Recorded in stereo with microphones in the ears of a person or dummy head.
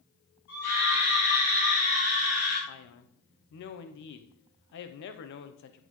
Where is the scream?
60° left (ahead or behind), 4.5 m; by 2.6 s 75° left (ahead or behind), 4.5 m.